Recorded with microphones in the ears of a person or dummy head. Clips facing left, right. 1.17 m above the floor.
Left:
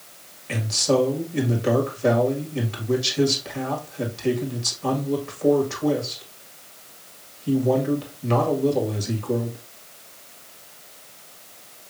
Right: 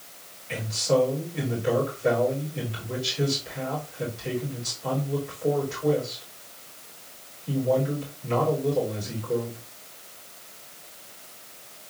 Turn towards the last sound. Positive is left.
turn(degrees=70)  # may be behind; listen again after turning